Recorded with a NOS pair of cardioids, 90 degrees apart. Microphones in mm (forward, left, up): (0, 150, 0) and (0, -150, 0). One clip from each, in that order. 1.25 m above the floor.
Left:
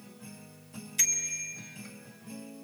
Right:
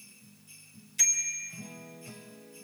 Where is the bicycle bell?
20° left, 4 m.